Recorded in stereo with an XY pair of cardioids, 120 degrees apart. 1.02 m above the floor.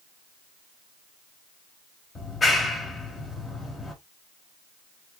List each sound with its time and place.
2.1 s a clap: 35° left, 1.6 m